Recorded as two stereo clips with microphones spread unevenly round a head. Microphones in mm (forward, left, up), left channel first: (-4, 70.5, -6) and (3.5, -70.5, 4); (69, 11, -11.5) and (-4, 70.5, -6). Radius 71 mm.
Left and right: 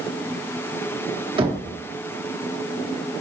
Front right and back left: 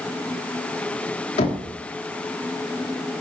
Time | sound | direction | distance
1.4 | knocking | 30° right | 1.4 m